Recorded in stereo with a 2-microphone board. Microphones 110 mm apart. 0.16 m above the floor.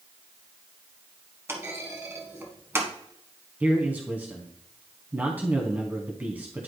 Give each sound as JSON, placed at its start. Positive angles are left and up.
{"t": 1.5, "sound": "a clunk", "side_deg": -20, "distance_m": 1.2}
{"t": 3.6, "sound": "a man speaking", "side_deg": -15, "distance_m": 1.1}